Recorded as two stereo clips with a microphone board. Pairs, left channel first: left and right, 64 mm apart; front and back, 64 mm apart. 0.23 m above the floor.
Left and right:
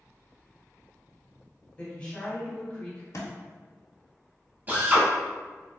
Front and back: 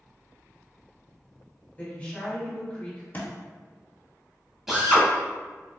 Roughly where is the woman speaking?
Ahead left.